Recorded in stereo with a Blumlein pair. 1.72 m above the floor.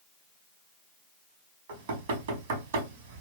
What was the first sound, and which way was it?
Knocking, 55° right.